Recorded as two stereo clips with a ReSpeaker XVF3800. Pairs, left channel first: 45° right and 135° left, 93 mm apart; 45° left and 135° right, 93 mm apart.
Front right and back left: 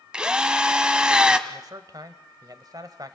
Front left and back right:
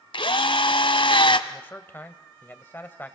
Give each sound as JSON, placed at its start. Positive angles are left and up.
{"t": 0.1, "sound": "a drill", "azimuth_deg": 55, "distance_m": 1.2}
{"t": 1.5, "sound": "a man speaking", "azimuth_deg": 105, "distance_m": 1.7}